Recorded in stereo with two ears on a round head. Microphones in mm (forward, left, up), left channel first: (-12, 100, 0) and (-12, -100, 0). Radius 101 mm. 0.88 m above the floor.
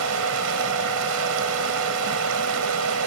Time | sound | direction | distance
0.0 | running water | 75° right (ahead or behind) | ?